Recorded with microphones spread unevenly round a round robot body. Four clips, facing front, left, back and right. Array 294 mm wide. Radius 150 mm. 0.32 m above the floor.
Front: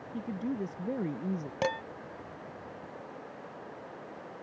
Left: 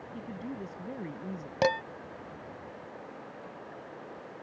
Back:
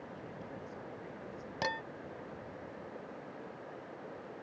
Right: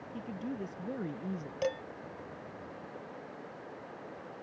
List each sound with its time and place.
0.1 s a woman speaking: 5° right; by 1.5 s 10° right
1.6 s dishes clattering: 70° left